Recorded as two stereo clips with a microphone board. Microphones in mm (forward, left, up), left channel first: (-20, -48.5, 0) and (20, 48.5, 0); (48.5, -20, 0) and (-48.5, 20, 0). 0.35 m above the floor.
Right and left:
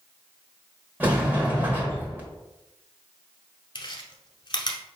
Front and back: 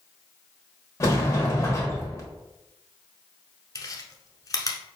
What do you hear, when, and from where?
1.0 s a sliding door: 10° left, 1.2 m
3.8 s chewing: 75° right, 0.8 m